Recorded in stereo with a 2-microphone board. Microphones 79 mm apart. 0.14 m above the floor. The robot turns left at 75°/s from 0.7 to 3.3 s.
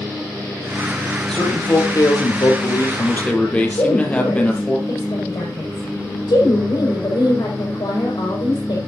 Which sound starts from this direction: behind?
A man speaking, at 1.3 s.